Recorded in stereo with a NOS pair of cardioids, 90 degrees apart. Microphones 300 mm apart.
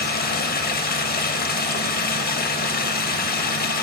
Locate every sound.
0.0 s running water: 30° left, 1.1 m